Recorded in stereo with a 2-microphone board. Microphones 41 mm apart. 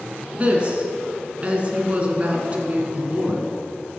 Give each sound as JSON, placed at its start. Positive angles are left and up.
{"t": 0.3, "sound": "a woman speaking", "side_deg": -35, "distance_m": 1.7}